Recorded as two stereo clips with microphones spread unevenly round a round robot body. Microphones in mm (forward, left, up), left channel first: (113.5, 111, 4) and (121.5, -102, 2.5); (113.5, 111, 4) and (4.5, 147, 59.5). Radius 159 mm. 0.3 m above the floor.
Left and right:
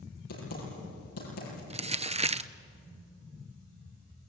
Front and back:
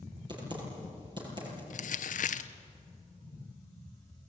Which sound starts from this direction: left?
Typing on a keyboard, at 0.3 s.